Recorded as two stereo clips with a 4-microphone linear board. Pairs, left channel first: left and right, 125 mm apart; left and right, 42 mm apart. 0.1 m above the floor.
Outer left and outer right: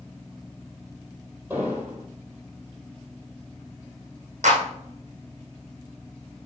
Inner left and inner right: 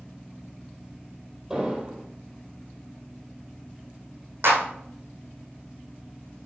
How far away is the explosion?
About 3.5 m.